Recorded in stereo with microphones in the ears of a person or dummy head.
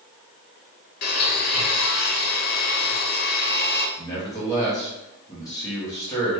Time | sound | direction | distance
1.0 | a blender | 50° left (ahead or behind) | 0.7 m
4.0 | a man speaking | 20° left (ahead or behind) | 1.1 m